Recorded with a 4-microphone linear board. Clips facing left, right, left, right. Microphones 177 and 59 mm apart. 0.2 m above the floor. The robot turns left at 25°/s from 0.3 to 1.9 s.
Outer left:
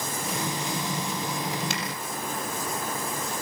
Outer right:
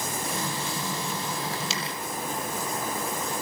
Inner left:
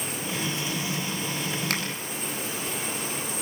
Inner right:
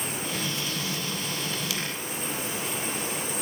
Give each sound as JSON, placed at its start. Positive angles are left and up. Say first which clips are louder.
{"t": 1.7, "sound": "a finger snap", "louder": "outer left 1 dB, inner left 6 dB", "side_deg": 55, "distance_m": 5.0}